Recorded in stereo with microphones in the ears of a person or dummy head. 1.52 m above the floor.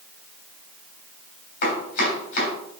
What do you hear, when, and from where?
1.6 s chopping: 50° left (ahead or behind), 3 m